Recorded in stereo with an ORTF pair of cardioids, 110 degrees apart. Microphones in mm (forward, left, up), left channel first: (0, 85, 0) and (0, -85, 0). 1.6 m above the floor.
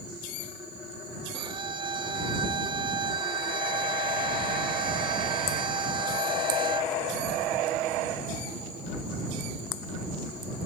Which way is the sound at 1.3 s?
30° right.